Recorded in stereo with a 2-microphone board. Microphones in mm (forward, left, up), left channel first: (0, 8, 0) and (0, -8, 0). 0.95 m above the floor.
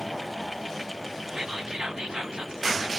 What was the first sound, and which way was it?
Whispering, 60° right (ahead or behind).